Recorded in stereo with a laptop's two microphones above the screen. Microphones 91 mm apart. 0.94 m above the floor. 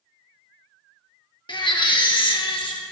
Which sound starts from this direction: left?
A baby crying, at 1.5 s.